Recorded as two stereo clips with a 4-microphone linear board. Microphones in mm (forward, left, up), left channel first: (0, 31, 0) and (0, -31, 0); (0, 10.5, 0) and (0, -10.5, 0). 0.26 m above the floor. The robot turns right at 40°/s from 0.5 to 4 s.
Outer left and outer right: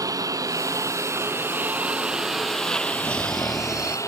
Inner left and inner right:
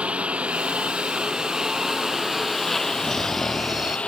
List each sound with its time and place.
0.0 s a lawn mower: 80° right; by 4.1 s 60° left
3.0 s snoring: 160° left; by 4.0 s 165° right